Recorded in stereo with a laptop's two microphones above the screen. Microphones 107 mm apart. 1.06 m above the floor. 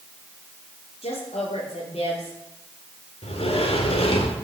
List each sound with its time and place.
1.0 s a woman speaking: 80° left, 3 m
3.2 s a sliding door: 70° left (ahead or behind), 1.7 m